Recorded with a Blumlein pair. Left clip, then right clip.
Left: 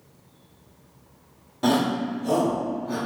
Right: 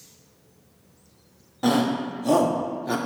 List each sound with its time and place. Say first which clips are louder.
1.6 s a shout: even; straight ahead, 1.1 m; by 3.0 s 45° right, 0.8 m